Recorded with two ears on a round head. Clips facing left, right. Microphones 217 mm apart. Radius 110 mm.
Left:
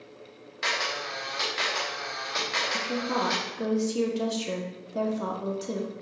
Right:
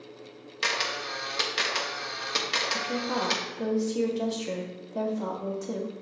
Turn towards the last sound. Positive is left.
turn(degrees=10)  # may be behind; listen again after turning